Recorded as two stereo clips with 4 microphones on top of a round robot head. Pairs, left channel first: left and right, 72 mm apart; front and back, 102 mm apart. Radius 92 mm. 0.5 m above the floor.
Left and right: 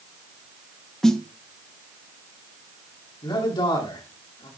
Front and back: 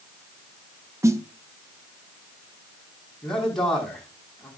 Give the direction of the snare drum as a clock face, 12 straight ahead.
6 o'clock.